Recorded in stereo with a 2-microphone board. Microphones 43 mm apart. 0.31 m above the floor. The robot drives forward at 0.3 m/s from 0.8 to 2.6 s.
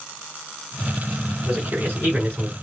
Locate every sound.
1.4 s a man speaking: 45° right (ahead or behind), 2.5 m; by 2.5 s 50° right (ahead or behind), 2.5 m